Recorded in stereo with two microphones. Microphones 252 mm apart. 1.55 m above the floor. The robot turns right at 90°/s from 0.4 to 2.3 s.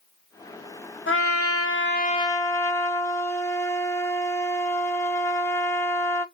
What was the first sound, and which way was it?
A trumpet, 55° left.